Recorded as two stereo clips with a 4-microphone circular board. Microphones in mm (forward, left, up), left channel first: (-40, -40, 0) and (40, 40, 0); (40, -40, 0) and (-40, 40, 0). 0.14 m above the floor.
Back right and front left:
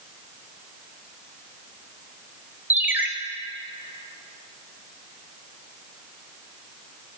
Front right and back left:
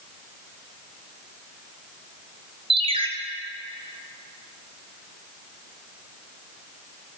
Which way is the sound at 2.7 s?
115° left.